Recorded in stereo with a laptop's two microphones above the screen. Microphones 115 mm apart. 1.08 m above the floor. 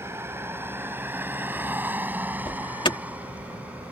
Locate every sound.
0.0 s a vehicle: 20° right (ahead or behind); by 3.9 s 10° right (ahead or behind)
2.5 s an alarm: 45° left (ahead or behind)